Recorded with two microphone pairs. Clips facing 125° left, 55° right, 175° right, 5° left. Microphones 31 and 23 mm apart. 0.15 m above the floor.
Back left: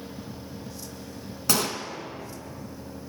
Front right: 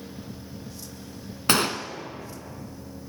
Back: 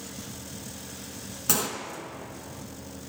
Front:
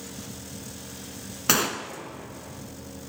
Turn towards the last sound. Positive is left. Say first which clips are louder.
# front right 4 dB, front 5 dB
turn(degrees=-35)